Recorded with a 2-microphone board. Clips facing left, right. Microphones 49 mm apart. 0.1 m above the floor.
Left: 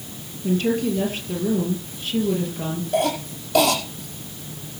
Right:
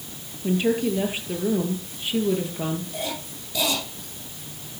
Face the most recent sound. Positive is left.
turn(degrees=60)  # may be behind; listen again after turning